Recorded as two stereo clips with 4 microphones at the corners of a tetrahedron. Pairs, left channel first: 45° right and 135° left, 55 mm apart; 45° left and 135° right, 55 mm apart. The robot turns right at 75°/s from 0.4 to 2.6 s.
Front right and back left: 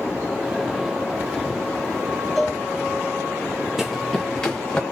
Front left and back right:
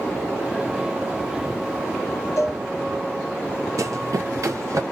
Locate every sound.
2.4 s a cowbell: 45° left, 1.2 m; by 2.6 s 60° left, 1.2 m
3.8 s running footsteps: 140° right, 0.5 m; by 4.8 s 120° right, 1.5 m